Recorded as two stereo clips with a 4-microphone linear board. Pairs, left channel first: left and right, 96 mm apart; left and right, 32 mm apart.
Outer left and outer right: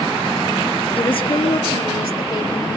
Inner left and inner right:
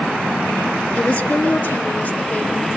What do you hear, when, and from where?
0.9 s a woman speaking: 60° left (ahead or behind), 2.5 m; by 2.8 s 65° left (ahead or behind), 3.5 m